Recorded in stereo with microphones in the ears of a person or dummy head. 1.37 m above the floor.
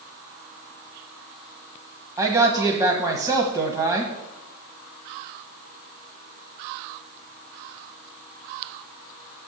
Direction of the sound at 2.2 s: 10° right (ahead or behind).